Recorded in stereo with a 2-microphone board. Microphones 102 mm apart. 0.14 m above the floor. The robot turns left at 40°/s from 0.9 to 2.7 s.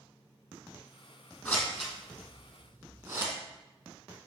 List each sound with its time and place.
1.4 s scissors: 10° left (ahead or behind), 3.5 m; by 3.3 s 35° right (ahead or behind), 3.5 m